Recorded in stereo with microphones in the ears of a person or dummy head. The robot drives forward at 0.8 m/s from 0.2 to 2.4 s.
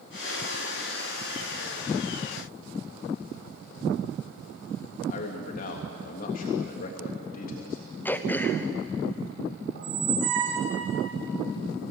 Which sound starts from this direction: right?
A squeak, at 9.8 s.